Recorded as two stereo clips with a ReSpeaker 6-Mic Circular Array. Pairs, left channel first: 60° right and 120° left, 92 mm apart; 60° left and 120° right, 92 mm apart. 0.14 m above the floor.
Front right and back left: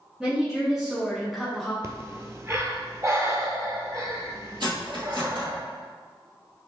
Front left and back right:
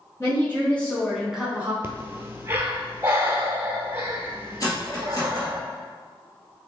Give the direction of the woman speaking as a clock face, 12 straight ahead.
11 o'clock.